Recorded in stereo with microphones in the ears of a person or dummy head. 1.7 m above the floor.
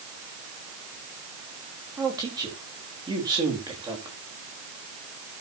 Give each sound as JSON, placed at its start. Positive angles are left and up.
{"t": 2.0, "sound": "a man speaking", "side_deg": -25, "distance_m": 4.0}